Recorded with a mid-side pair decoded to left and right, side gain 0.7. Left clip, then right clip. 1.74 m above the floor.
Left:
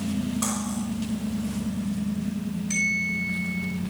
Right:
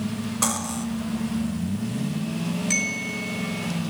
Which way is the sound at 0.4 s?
35° right.